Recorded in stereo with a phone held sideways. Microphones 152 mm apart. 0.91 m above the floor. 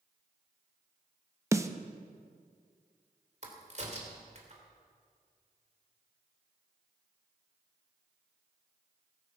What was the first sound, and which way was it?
A snare drum, 20° right (ahead or behind).